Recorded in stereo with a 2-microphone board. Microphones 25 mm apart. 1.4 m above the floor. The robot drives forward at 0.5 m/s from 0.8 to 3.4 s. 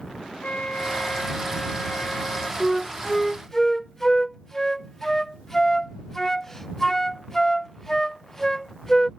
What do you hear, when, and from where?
0.4 s a flute: 65° left (ahead or behind); by 2.5 s 70° left (ahead or behind)
2.6 s a flute: 15° left (ahead or behind); by 9.1 s 20° left (ahead or behind)